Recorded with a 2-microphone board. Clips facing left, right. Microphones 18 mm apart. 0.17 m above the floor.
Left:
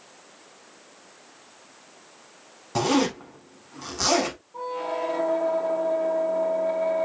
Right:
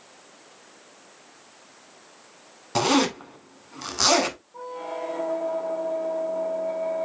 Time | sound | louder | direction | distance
2.8 | a zipper | right 1 dB | 35° right (ahead or behind) | 1.2 m
4.5 | a squeak | left 4 dB | 35° left (ahead or behind) | 0.7 m